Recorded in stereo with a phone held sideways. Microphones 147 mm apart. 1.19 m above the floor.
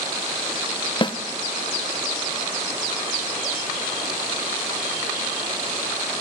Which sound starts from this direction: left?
A snare drum, at 1.0 s.